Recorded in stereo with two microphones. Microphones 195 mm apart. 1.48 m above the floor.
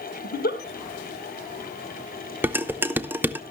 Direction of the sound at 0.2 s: 60° left (ahead or behind).